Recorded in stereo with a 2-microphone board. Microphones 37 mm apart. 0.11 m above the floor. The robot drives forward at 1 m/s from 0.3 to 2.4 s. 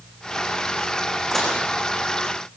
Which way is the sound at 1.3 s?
10° left (ahead or behind).